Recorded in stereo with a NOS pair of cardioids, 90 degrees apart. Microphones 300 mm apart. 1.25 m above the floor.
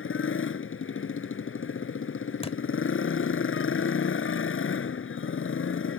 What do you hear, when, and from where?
0.0 s a motorcycle: 45° left
2.4 s a thud: 20° left